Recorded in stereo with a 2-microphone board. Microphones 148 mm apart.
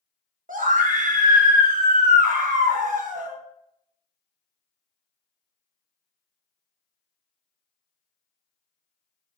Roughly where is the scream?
Right.